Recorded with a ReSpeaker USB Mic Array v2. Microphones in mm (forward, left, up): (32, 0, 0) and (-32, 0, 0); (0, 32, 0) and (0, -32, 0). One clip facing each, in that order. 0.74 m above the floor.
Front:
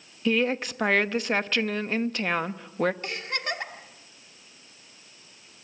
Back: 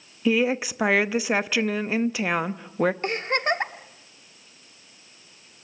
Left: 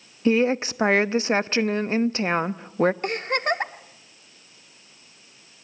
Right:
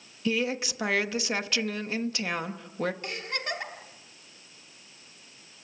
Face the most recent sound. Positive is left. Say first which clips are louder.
# back 7 dB, left 10 dB
turn(degrees=130)